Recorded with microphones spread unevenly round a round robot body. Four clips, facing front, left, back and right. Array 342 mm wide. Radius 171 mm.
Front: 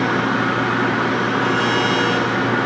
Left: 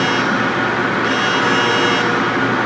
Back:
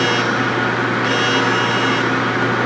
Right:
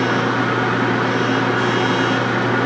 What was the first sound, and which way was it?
Only background noise.